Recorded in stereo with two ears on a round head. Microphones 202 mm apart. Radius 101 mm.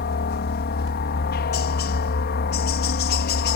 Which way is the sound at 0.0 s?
45° left (ahead or behind).